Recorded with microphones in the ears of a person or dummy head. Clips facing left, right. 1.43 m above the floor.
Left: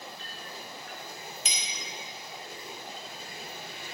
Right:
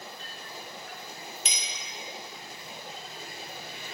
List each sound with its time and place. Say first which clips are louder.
1.4 s a clink: even; 50° right (ahead or behind), 1.6 m